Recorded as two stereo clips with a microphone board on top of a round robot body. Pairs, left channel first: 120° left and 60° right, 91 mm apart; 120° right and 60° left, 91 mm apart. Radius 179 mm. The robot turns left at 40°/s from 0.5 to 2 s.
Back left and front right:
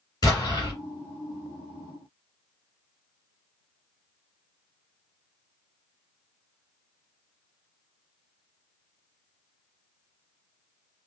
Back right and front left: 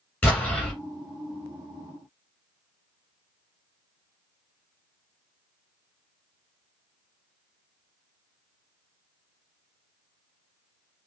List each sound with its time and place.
0.2 s an explosion: 170° left, 3 m; by 0.7 s 160° left, 3 m